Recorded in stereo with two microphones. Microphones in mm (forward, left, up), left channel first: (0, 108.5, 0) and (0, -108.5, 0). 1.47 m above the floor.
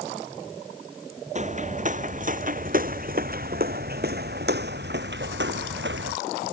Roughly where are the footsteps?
Right.